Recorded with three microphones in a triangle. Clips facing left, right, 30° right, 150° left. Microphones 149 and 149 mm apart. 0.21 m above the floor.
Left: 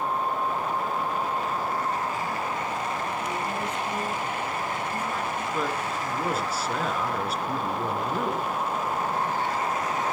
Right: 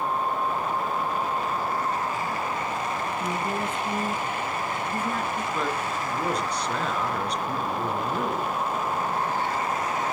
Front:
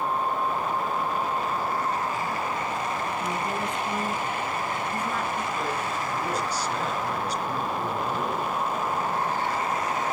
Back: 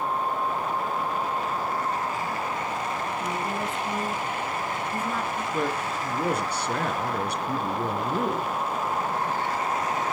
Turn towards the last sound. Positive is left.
turn(degrees=175)